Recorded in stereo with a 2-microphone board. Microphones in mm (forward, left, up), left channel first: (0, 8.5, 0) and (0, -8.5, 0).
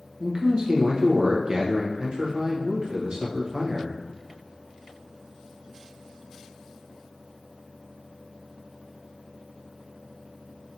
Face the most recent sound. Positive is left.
turn(degrees=-45)  # may be behind; listen again after turning